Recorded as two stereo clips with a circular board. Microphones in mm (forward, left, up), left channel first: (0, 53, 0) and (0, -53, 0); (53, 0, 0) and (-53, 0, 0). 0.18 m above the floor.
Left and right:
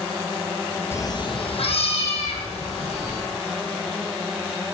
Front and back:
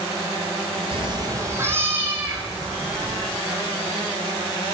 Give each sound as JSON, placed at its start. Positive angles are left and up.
{"t": 0.9, "sound": "a cat meowing", "azimuth_deg": 155, "distance_m": 0.7}